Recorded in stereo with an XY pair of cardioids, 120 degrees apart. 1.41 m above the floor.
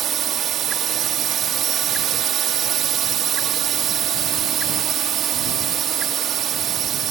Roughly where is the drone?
Ahead right.